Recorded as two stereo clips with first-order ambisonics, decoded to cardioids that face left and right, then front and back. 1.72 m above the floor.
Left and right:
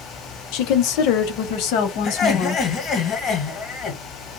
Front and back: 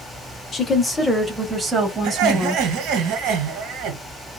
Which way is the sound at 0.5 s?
70° left.